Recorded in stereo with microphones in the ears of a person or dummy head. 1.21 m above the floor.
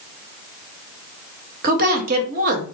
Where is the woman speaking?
50° right (ahead or behind), 0.8 m.